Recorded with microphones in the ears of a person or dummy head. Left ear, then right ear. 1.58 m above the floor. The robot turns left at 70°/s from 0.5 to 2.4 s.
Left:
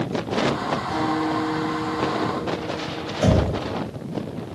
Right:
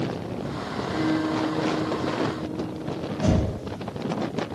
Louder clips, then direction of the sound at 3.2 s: Left 5 dB; 40° left (ahead or behind).